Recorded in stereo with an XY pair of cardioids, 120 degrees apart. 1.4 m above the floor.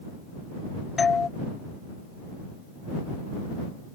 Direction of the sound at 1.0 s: 30° left.